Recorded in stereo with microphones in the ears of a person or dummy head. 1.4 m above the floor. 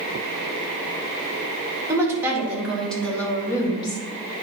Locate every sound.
1.9 s a woman speaking: 20° right (ahead or behind), 2.5 m; by 4.0 s 30° left (ahead or behind), 2 m